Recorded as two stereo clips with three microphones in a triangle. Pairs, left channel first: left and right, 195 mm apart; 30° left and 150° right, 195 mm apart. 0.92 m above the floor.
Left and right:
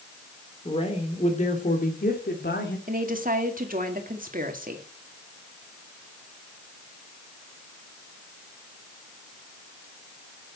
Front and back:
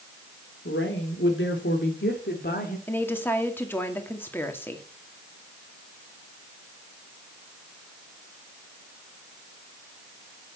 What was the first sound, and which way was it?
A woman speaking, 30° left.